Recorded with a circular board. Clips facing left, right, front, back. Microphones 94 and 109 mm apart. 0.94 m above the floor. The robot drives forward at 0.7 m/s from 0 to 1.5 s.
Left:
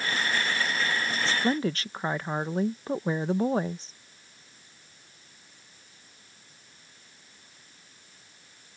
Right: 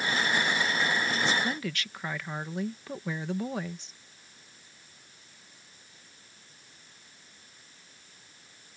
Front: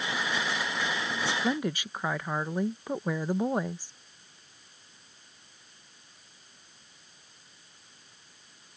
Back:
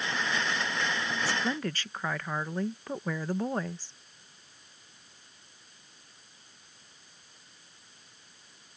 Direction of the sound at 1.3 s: 50° left.